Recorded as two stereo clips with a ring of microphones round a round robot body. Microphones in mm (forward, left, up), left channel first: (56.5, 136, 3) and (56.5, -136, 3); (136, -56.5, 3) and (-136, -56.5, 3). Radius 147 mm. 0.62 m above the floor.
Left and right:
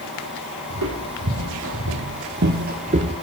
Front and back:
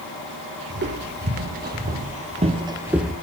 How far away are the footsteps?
About 1.6 m.